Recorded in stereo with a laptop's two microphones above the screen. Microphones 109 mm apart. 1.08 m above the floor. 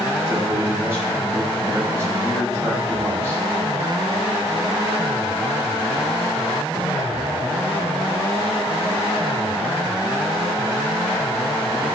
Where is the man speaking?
20° right (ahead or behind), 6 m.